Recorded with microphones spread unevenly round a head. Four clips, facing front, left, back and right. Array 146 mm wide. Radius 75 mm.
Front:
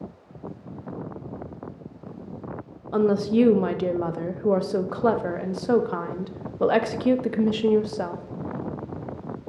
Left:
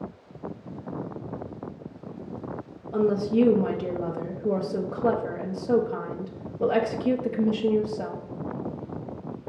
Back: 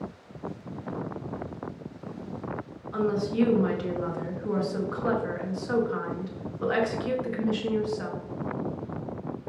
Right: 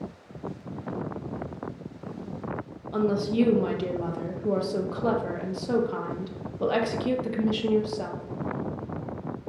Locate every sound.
2.9 s a woman speaking: 10° left, 0.5 m